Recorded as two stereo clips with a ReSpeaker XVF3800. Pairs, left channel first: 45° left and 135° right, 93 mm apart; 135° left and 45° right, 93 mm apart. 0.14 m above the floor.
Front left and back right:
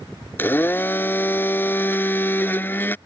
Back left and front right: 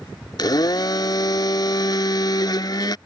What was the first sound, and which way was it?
A blender, 105° left.